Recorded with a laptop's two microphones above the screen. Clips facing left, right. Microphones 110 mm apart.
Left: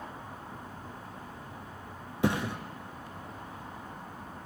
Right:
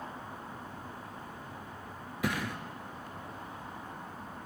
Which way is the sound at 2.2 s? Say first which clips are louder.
Left 5 dB; 30° left (ahead or behind).